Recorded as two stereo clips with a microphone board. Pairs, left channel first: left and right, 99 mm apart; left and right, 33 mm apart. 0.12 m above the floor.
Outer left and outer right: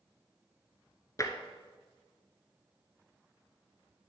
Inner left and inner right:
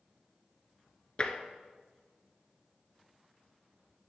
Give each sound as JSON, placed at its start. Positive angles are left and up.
{"t": 1.2, "sound": "tapping", "side_deg": 35, "distance_m": 0.8}